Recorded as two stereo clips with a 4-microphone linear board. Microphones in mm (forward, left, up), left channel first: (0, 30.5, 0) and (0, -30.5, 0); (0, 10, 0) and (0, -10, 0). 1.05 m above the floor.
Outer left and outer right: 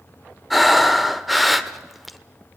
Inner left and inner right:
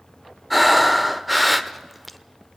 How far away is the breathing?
About 1.0 m.